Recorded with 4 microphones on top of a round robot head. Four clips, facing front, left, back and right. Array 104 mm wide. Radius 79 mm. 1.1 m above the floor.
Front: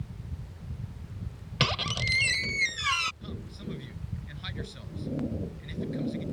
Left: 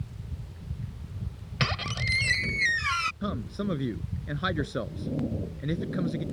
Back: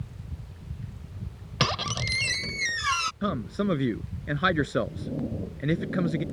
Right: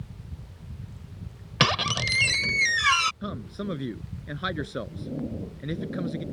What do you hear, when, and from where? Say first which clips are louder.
1.6 s a squeak: right 6 dB, back 2 dB; 100° right
3.2 s a man speaking: left 2 dB, back 13 dB; 175° left